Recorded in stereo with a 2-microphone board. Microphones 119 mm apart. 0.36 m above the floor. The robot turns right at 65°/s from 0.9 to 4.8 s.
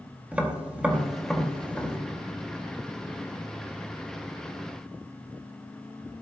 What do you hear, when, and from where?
0.3 s tapping: 10° right (ahead or behind), 1.7 m; by 2.0 s 25° left (ahead or behind), 1.7 m